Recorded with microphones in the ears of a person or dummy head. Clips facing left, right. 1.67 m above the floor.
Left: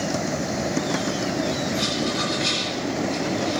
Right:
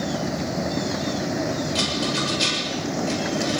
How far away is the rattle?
About 8 m.